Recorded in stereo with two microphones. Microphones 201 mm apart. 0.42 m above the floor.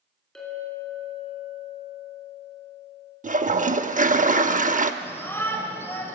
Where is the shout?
10° left (ahead or behind), 2.0 m.